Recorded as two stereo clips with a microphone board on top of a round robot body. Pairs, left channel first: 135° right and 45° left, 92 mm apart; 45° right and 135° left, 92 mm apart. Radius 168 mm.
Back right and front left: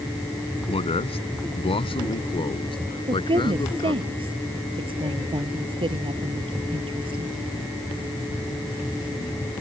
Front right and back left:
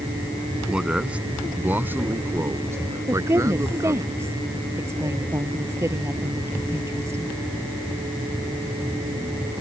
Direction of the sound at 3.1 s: 70° left.